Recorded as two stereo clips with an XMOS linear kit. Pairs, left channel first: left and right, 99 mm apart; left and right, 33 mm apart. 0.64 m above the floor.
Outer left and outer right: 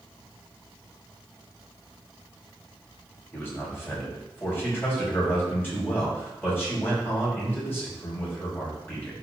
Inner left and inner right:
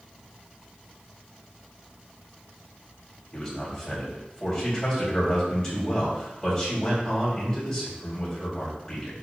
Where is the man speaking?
20° left (ahead or behind), 4 m.